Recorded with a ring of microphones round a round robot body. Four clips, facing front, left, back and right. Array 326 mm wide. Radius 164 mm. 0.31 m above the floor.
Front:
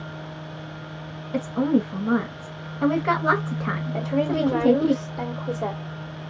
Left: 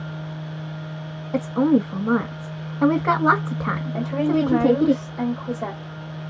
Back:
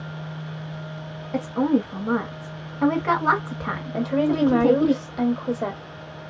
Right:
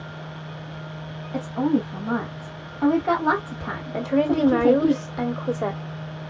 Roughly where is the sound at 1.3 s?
Left.